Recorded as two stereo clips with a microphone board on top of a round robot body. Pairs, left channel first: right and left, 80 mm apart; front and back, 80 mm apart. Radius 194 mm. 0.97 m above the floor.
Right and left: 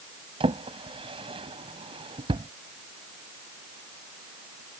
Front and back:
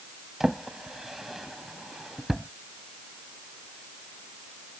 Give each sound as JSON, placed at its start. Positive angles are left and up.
{"t": 0.4, "sound": "a drawer", "azimuth_deg": 95}